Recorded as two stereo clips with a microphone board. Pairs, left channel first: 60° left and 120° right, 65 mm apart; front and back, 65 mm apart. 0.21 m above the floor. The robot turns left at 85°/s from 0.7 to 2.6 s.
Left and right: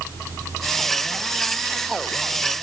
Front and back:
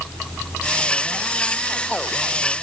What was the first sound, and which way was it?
Only background noise.